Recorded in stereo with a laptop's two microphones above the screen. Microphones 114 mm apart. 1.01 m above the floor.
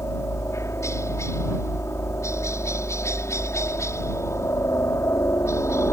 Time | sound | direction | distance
0.0 | a helicopter | 25° left (ahead or behind) | ?